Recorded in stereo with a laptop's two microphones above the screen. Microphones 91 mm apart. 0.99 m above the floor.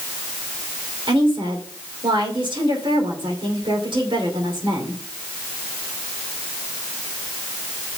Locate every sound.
1.1 s a woman speaking: 60° right (ahead or behind), 2.5 m